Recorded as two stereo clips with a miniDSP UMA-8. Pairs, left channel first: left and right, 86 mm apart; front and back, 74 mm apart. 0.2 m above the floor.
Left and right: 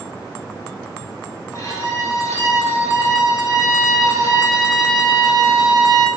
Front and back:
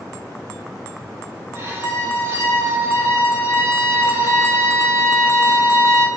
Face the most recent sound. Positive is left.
turn(degrees=135)